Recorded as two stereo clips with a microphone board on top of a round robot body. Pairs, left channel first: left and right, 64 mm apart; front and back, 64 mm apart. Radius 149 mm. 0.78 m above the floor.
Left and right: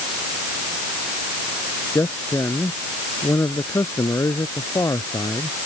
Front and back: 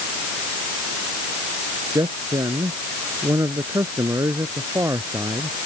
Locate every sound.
1.9 s a man speaking: 145° left; by 5.6 s 135° left